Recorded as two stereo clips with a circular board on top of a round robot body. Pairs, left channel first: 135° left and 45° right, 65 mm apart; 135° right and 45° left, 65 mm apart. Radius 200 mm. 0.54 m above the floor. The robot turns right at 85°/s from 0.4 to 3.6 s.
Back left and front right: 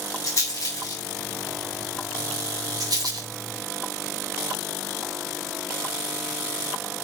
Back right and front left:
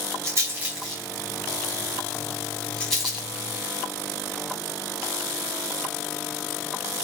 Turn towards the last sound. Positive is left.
turn(degrees=5)